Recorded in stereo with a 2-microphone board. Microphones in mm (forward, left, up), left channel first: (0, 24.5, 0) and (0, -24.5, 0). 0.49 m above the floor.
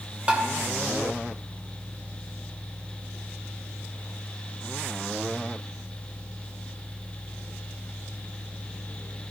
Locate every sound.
0.3 s tapping: 25° right (ahead or behind), 1.8 m